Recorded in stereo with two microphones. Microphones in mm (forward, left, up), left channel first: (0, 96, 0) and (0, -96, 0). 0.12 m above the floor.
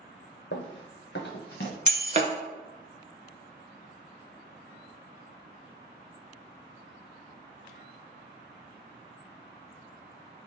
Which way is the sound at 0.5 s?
75° left (ahead or behind).